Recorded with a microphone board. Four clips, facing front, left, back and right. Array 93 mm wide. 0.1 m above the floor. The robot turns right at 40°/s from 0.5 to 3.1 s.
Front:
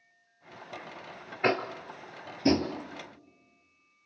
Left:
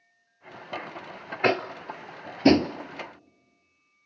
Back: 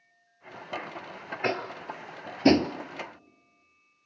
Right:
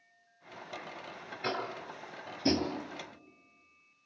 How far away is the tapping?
About 1.0 m.